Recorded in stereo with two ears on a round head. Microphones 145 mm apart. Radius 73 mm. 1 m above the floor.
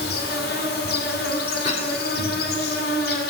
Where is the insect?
65° left (ahead or behind), 2.0 m.